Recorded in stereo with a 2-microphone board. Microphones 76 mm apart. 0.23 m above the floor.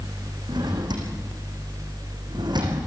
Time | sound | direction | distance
0.5 | a drawer | 70° right (ahead or behind) | 5 m